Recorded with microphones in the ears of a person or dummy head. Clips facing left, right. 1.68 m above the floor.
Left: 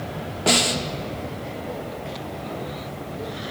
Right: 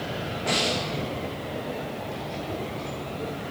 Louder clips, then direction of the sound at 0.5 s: Left 5 dB; 50° left (ahead or behind).